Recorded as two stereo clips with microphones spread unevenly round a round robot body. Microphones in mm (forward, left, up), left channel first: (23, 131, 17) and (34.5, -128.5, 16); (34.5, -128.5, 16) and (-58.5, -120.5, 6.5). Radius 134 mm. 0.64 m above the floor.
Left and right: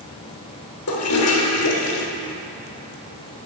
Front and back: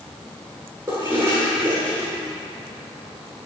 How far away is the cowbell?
I don't hear a cowbell.